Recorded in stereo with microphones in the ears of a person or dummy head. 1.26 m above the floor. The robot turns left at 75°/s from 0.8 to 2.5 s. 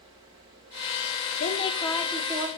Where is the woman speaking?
55° left, 0.8 m; by 2.5 s 25° right, 0.8 m.